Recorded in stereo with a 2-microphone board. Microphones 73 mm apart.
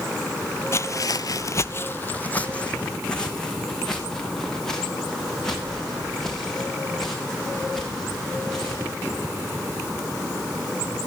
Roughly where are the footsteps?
Left.